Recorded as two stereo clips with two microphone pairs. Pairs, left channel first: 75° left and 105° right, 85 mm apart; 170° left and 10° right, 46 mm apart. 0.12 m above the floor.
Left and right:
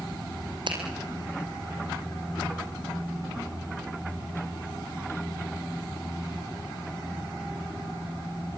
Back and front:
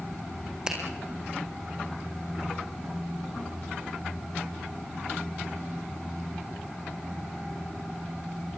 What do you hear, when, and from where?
0.7 s a finger snap: 85° right, 5 m